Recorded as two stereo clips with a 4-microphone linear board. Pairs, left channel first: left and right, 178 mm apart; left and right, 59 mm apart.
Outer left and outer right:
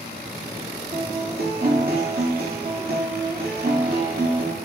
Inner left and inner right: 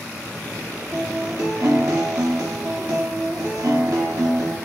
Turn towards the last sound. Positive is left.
turn(degrees=-60)  # may be behind; listen again after turning